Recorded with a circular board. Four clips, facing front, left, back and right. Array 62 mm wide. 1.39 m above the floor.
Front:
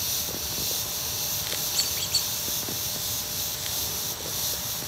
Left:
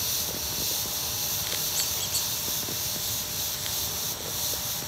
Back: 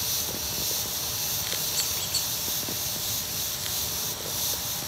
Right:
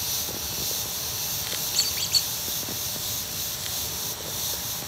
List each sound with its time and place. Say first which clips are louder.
1.7 s a squeak: right 3 dB, front 1 dB; 75° right, 1.9 m